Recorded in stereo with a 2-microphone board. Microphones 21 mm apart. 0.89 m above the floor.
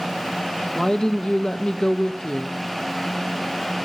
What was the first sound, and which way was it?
A woman speaking, 40° left (ahead or behind).